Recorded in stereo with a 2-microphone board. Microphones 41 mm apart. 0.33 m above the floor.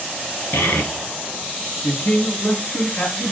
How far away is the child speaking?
About 6 m.